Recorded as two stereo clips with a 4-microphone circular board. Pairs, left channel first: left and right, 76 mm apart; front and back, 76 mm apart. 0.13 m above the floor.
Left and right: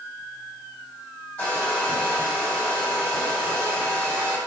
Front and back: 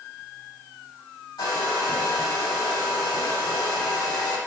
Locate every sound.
1.4 s a hair dryer: 15° left, 3 m